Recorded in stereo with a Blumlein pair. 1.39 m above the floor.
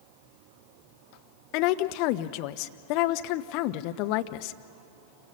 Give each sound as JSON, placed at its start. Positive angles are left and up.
{"t": 1.5, "sound": "a woman speaking", "azimuth_deg": 45, "distance_m": 0.9}